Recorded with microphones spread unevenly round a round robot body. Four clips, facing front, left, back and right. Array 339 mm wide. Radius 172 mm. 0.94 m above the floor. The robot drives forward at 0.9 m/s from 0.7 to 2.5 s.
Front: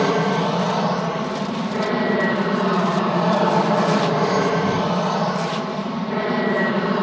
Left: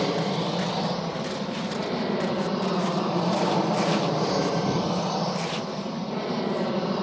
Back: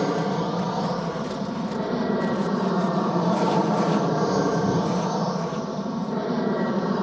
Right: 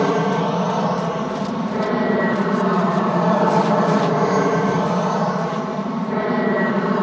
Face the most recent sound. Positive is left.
turn(degrees=-80)